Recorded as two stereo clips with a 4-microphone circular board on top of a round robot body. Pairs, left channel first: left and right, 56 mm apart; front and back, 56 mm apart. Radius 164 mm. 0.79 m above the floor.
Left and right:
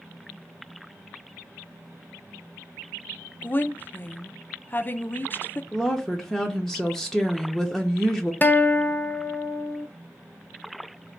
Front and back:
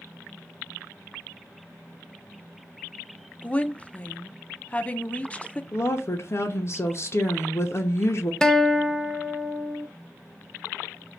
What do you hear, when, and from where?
3.4 s a woman speaking: 55° left, 0.5 m
5.7 s a woman speaking: 5° left, 0.7 m
8.4 s a guitar: 70° left, 0.5 m